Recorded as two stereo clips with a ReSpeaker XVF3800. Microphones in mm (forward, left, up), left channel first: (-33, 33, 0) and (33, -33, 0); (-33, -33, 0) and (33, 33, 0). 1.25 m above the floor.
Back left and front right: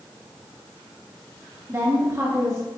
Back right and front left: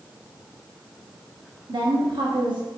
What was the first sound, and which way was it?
A woman speaking, 15° left.